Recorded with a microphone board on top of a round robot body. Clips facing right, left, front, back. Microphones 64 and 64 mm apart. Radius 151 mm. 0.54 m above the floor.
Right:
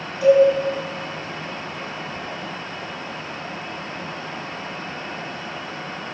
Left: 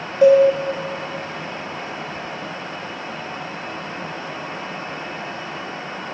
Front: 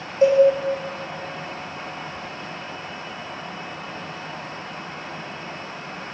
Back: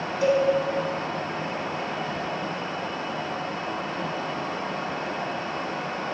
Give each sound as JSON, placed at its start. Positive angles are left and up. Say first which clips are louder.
{"t": 0.2, "sound": "a cowbell", "louder": "left 2 dB, front 7 dB", "azimuth_deg": 50, "distance_m": 2.5}